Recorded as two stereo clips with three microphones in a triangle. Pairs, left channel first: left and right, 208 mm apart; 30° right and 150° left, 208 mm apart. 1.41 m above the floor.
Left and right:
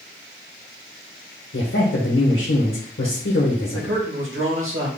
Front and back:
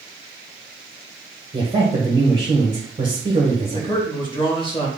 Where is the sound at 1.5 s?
85° left, 1.3 m.